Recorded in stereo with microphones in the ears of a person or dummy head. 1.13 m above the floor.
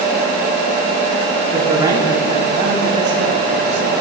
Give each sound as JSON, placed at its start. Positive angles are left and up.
{"t": 1.5, "sound": "a man speaking", "side_deg": -10, "distance_m": 2.0}